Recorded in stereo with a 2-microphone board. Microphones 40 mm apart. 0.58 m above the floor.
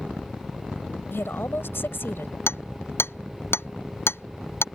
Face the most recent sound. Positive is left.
turn(degrees=70)  # may be behind; listen again after turning